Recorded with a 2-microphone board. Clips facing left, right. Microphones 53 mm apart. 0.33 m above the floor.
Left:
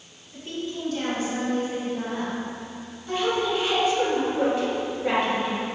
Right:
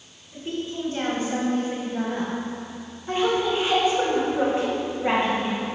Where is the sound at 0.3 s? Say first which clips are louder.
Right 2 dB; 15° right (ahead or behind), 2 m; by 2.3 s 40° right (ahead or behind), 1.8 m.